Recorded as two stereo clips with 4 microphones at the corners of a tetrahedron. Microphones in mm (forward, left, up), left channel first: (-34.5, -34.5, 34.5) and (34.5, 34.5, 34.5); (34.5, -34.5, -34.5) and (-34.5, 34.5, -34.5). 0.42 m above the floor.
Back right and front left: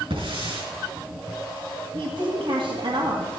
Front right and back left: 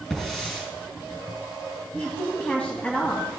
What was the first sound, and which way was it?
A hiss, 40° left.